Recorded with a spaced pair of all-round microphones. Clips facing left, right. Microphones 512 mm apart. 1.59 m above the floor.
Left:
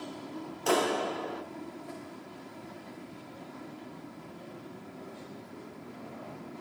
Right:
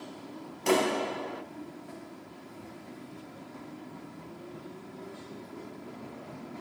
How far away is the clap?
About 1.7 m.